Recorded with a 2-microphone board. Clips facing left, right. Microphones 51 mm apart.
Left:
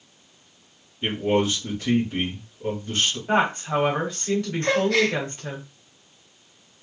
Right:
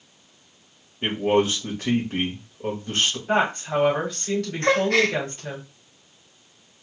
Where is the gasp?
45° right (ahead or behind), 0.9 m.